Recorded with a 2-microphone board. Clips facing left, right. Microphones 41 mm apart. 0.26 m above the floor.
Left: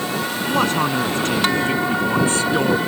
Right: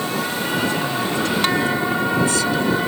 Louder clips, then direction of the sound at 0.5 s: Left 5 dB; 65° left (ahead or behind).